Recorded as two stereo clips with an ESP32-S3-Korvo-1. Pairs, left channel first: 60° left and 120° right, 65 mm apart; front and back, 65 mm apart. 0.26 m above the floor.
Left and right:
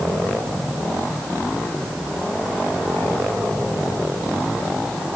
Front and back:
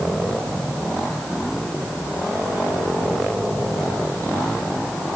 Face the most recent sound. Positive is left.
No sound to turn to.